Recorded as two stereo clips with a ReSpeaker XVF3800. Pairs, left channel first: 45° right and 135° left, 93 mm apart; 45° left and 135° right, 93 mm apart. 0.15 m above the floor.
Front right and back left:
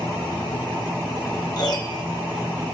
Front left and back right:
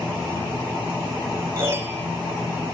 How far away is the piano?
About 3 m.